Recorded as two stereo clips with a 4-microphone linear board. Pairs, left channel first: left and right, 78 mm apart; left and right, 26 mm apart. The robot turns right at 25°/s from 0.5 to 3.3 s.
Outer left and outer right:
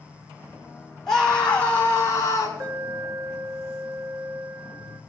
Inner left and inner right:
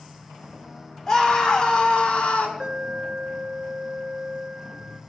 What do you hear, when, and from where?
1.1 s a scream: 10° left, 5.5 m; by 2.5 s 45° left, 5.5 m
2.6 s an alarm: 50° right (ahead or behind), 1.6 m; by 5.0 s 40° right (ahead or behind), 1.6 m